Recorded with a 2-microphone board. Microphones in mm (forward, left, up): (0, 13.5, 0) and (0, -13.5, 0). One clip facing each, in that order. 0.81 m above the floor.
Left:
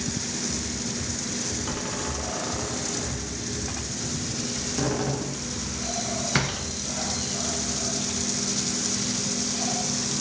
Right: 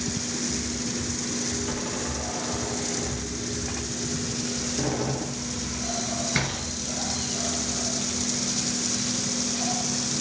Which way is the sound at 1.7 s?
45° left (ahead or behind).